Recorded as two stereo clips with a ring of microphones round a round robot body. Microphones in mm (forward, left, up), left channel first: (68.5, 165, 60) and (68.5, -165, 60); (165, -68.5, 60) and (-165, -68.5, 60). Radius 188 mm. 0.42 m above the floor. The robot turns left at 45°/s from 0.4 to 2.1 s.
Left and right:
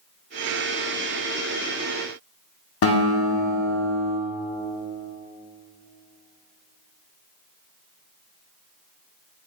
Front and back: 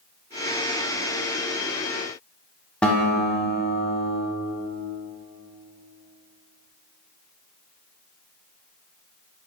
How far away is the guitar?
About 0.6 m.